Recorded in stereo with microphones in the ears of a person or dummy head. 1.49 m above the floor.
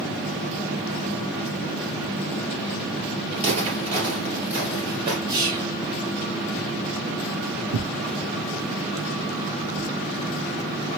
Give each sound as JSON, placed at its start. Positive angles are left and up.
{"t": 3.3, "sound": "footsteps", "side_deg": -30, "distance_m": 2.5}
{"t": 5.3, "sound": "whispering", "side_deg": -30, "distance_m": 3.0}
{"t": 7.7, "sound": "tearing paper", "side_deg": -75, "distance_m": 0.8}